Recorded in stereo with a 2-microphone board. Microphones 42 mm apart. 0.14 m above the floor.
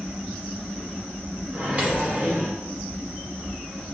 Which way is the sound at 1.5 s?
35° right (ahead or behind).